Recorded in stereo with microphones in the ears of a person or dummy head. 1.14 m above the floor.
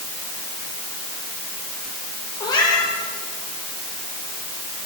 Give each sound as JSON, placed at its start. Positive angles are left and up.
{"t": 2.4, "sound": "a cat meowing", "side_deg": 20, "distance_m": 7.5}